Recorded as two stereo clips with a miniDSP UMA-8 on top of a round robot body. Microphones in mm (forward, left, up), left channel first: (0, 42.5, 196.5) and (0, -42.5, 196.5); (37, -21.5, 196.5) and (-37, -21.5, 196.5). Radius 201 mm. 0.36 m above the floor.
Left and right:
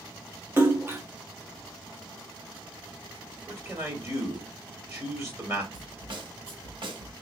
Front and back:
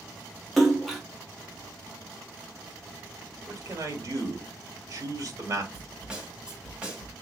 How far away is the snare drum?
About 1.8 m.